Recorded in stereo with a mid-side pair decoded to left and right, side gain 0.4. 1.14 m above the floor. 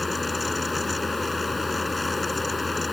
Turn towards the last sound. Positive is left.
turn(degrees=20)